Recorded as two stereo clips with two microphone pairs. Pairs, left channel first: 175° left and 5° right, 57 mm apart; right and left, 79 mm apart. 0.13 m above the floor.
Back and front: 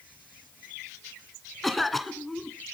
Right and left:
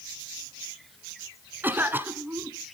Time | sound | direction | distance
1.6 | a cough | 90° left | 1.2 m